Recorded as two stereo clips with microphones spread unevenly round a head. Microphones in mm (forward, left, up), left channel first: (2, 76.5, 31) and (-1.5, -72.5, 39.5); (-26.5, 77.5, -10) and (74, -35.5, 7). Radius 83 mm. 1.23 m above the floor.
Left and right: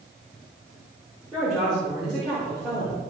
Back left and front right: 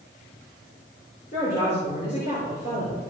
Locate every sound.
1.3 s a woman speaking: 175° left, 4.5 m